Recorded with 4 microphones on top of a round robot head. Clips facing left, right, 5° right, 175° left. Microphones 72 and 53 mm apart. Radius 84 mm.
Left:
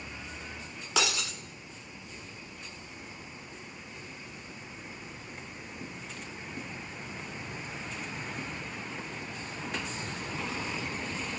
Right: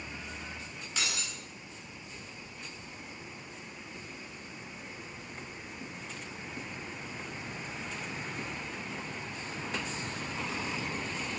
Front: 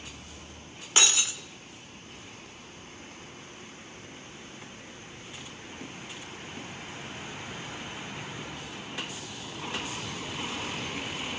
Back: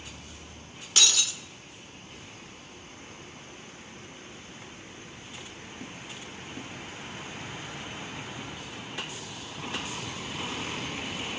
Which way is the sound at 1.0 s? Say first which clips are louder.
Left 7 dB, front 1 dB; 55° left.